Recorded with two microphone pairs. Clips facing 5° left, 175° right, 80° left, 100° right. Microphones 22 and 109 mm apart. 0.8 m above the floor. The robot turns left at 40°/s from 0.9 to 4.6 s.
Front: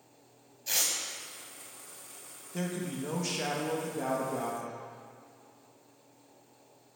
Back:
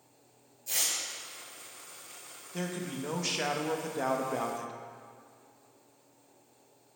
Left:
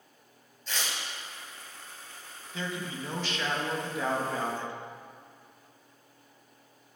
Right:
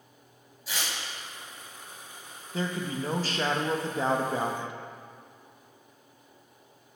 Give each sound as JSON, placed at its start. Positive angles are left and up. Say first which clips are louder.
{"t": 0.7, "sound": "tearing paper", "louder": "front 1 dB, even", "azimuth_deg": -20, "distance_m": 1.2}
{"t": 2.5, "sound": "a man speaking", "louder": "front 1 dB, right 5 dB", "azimuth_deg": -80, "distance_m": 0.6}